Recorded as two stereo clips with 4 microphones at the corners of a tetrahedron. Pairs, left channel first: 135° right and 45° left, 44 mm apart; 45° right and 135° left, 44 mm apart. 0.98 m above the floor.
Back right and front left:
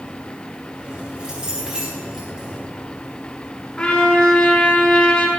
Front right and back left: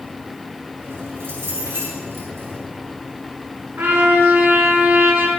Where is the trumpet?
160° left, 3 m.